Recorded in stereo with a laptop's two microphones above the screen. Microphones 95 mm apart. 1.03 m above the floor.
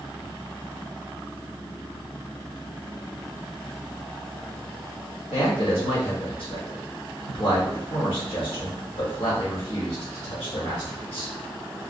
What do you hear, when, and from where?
5.3 s a man speaking: 75° left (ahead or behind), 1.8 m